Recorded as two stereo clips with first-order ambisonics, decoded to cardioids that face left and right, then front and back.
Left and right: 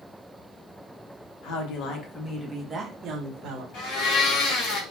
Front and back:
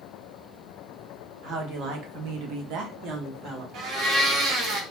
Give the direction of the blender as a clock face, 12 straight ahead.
8 o'clock.